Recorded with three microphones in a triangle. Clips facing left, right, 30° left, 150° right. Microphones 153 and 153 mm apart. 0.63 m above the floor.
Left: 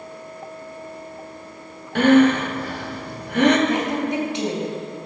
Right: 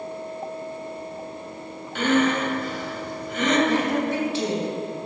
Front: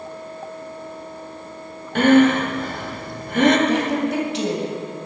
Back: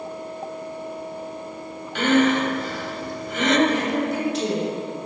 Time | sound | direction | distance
1.9 | breathing | 65° left | 1.2 m
3.7 | a woman speaking | 20° left | 3 m